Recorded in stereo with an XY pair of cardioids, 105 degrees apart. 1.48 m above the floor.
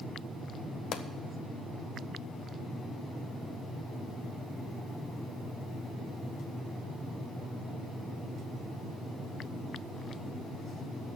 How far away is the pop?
About 1.0 m.